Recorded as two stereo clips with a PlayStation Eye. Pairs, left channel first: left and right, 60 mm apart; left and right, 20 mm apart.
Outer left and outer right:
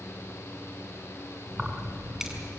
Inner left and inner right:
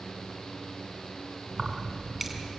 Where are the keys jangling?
10° right (ahead or behind), 3 m.